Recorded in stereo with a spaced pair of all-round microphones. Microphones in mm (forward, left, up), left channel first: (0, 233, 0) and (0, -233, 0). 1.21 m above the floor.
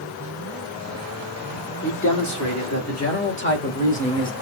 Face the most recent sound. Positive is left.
turn(degrees=10)  # may be behind; listen again after turning